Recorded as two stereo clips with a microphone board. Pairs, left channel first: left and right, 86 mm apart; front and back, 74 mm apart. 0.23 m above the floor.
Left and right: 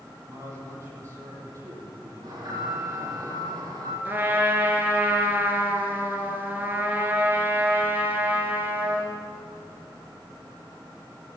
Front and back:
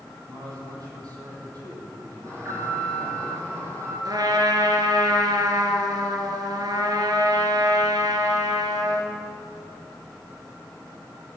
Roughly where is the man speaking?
Behind right.